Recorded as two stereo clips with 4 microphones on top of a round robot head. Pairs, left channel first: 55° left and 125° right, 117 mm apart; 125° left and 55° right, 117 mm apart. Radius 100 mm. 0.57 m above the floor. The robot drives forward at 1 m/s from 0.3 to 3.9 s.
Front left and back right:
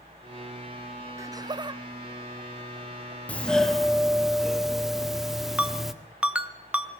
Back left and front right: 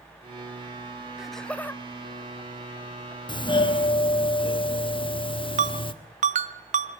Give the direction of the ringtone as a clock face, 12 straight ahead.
1 o'clock.